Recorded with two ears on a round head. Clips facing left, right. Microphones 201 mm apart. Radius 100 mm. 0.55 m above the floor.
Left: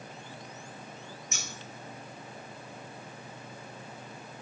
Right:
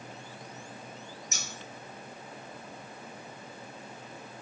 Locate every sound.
1.3 s scissors: 35° right (ahead or behind), 0.9 m